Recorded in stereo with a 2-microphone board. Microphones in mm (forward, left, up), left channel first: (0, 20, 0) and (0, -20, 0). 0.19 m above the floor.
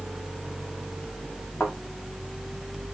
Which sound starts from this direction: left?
A thud, at 1.6 s.